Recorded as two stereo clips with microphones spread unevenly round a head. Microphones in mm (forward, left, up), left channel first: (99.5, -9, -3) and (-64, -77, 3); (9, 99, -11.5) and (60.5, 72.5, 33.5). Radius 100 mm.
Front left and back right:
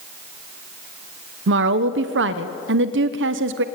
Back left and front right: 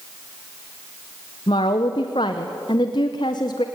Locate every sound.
1.5 s a woman speaking: 150° right, 1.0 m